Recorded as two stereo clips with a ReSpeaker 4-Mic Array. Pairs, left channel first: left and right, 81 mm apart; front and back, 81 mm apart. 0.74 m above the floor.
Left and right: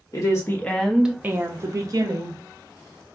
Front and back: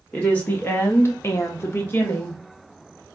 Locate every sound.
0.1 s a woman speaking: 70° left, 0.7 m; by 2.4 s 65° right, 1.2 m